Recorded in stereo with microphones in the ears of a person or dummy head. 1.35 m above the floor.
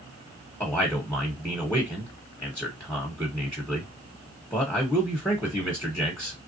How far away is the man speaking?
About 1.1 m.